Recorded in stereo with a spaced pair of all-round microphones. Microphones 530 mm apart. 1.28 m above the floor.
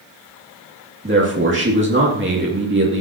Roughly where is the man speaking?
Right.